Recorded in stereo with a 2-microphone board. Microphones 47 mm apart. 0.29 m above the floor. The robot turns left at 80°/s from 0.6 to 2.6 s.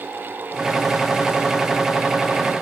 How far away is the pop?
I don't hear a pop.